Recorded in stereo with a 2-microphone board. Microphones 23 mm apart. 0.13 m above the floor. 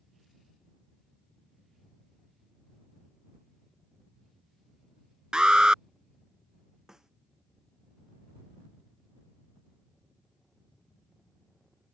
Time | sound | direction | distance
5.3 | an alarm | 35° right (ahead or behind) | ?
6.9 | a snare drum | 20° right (ahead or behind) | ?